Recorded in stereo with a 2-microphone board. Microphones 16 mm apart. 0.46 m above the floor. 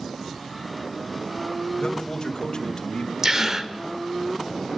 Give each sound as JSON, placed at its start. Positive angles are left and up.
{"t": 1.8, "sound": "a man speaking", "side_deg": 50, "distance_m": 2.5}
{"t": 3.2, "sound": "a gasp", "side_deg": -35, "distance_m": 1.4}